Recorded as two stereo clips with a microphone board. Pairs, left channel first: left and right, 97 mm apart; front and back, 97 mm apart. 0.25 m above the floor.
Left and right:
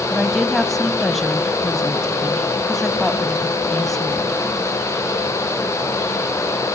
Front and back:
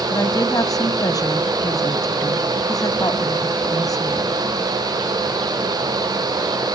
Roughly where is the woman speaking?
Ahead.